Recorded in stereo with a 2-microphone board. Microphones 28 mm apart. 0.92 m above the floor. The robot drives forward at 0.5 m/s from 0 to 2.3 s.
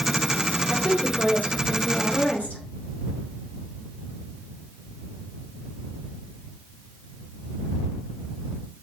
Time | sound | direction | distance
0.7 | a woman speaking | 80° left | 2.5 m